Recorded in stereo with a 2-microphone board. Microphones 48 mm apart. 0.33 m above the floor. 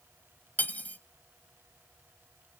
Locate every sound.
0.6 s cutlery clinking: 35° left (ahead or behind), 1.0 m